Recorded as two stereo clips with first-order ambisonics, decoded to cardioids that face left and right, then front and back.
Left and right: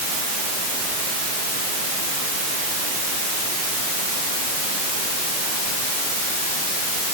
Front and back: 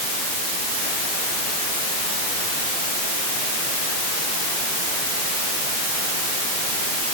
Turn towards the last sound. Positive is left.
No sound to turn to.